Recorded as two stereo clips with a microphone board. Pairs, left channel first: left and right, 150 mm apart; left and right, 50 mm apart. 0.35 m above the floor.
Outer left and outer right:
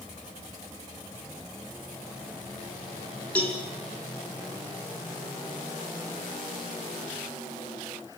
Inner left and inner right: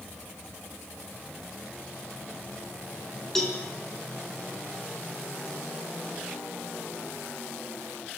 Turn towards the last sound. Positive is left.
turn(degrees=10)  # may be behind; listen again after turning